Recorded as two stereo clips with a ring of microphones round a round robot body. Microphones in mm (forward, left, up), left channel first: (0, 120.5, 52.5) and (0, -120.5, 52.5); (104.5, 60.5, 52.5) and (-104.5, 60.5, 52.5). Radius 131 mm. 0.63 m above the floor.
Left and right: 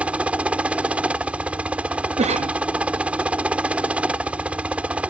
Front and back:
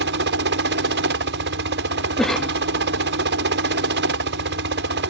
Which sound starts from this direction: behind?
A helicopter, at 0.0 s.